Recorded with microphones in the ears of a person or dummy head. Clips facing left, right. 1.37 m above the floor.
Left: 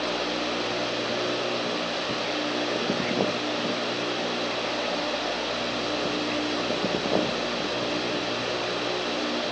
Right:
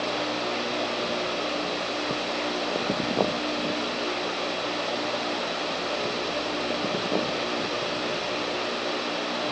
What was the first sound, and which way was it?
Only background noise.